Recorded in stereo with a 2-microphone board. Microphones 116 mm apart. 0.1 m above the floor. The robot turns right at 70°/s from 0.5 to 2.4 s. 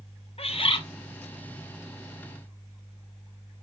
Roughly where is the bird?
Left.